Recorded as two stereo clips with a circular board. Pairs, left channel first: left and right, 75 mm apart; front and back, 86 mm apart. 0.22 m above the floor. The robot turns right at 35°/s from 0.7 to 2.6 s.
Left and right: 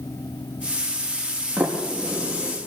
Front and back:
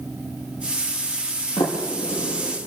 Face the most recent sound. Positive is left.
turn(degrees=25)